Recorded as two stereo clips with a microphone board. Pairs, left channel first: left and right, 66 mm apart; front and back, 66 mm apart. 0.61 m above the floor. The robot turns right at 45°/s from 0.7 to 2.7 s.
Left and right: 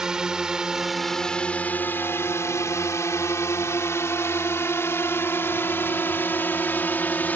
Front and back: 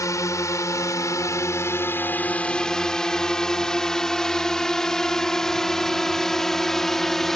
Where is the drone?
15° right; by 7.4 s 80° left.